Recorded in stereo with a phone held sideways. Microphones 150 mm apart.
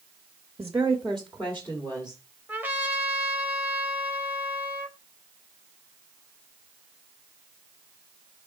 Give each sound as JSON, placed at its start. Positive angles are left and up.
{"t": 0.6, "sound": "a woman speaking", "side_deg": -15, "distance_m": 0.9}
{"t": 2.5, "sound": "a trumpet", "side_deg": -10, "distance_m": 1.1}